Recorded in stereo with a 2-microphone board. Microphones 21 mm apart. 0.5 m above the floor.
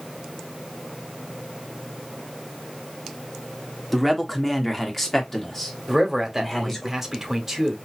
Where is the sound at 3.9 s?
5° left (ahead or behind), 1.3 m; by 6.9 s 20° left (ahead or behind), 1.9 m.